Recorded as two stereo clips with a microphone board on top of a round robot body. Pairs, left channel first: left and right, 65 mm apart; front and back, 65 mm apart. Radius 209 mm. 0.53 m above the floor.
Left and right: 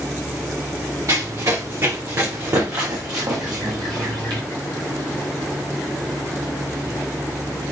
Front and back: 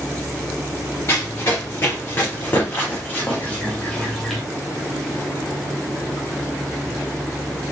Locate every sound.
1.1 s running footsteps: 55° right, 3.5 m; by 4.4 s 90° right, 0.9 m